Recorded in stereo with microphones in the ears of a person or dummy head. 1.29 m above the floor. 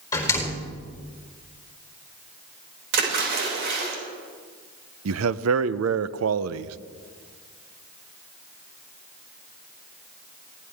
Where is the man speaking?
80° right, 0.7 m.